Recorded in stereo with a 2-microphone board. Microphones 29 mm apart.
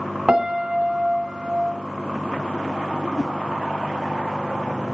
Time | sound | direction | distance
0.3 | a piano | 35° right (ahead or behind) | 1.7 m
3.2 | a whoosh | 20° right (ahead or behind) | 1.5 m